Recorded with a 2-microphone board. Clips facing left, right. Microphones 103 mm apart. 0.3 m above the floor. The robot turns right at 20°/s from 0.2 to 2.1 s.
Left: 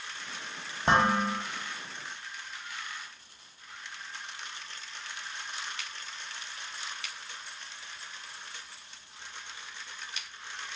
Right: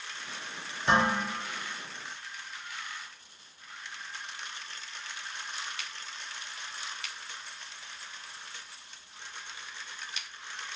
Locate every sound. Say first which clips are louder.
0.9 s dishes clattering: left 2 dB; 40° left (ahead or behind), 1.0 m; by 1.3 s 35° left (ahead or behind), 1.0 m